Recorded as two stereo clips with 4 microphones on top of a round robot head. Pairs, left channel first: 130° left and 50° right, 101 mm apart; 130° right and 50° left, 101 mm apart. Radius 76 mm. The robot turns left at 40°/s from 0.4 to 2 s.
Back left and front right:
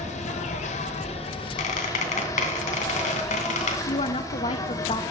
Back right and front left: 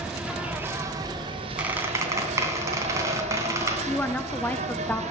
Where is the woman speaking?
155° left, 1.1 m.